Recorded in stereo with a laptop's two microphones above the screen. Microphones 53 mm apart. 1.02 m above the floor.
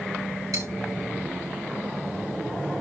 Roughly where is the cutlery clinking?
Right.